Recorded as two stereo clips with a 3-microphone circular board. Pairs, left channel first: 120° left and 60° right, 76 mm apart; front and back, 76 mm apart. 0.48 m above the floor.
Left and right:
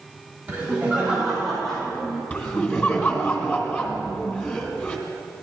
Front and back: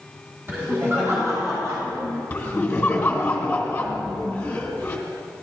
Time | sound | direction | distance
0.5 | laughter | 125° right | 3 m
2.3 | laughter | 65° left | 2 m